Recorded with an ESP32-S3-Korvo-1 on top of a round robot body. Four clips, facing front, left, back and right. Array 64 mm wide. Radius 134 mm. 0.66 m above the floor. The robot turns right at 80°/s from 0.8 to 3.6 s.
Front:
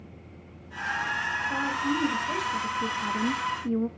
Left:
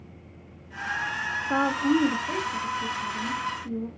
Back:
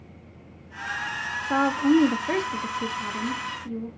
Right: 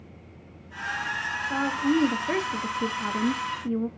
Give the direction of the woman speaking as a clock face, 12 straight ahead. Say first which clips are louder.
Left 2 dB, back 12 dB; 7 o'clock.